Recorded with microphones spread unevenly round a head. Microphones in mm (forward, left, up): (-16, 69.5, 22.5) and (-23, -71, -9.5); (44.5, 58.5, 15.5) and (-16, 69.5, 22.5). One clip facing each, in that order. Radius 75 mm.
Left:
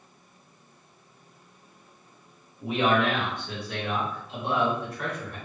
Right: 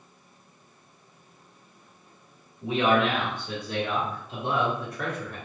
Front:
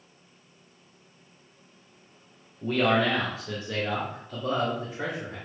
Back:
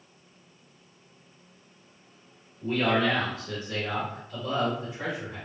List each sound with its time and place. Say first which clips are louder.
2.6 s a man speaking: right 1 dB, front 1 dB; 10° left, 1.2 m; by 5.4 s 55° right, 1.5 m